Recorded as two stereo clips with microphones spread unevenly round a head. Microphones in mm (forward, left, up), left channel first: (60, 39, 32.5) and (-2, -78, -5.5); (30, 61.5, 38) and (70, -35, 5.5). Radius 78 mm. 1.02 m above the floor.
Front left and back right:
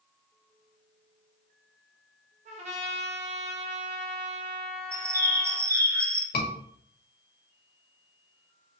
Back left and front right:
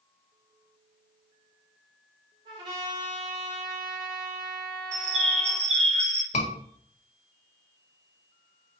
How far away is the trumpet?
About 1.2 m.